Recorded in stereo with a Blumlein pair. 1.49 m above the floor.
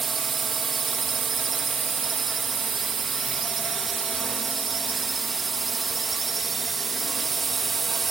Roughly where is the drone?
Ahead.